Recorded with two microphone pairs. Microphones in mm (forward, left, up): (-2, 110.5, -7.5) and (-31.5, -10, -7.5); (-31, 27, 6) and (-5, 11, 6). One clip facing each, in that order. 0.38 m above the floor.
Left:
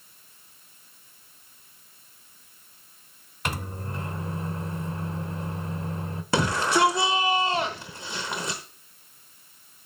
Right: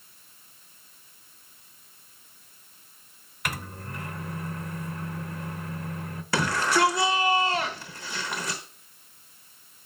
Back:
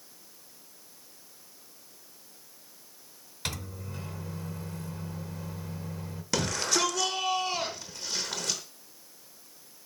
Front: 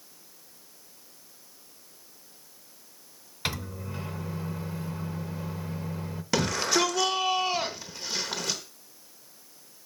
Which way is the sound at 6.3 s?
40° left.